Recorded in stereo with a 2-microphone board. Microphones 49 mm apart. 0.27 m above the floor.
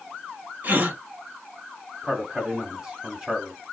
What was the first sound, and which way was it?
A gasp, 45° right (ahead or behind).